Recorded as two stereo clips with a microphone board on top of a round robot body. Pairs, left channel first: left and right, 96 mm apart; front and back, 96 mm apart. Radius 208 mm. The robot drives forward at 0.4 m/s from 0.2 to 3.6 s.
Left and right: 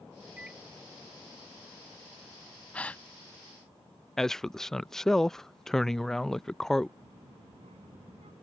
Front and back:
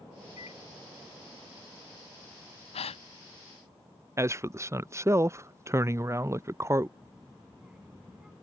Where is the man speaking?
170° left.